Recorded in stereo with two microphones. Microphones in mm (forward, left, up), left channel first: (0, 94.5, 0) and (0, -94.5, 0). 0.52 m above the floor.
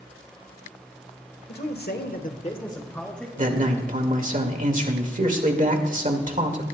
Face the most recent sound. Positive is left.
turn(degrees=-45)  # may be behind; listen again after turning